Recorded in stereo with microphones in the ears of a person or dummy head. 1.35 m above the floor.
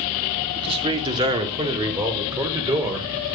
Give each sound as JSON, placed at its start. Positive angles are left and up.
{"t": 0.6, "sound": "a man speaking", "side_deg": -30, "distance_m": 3.5}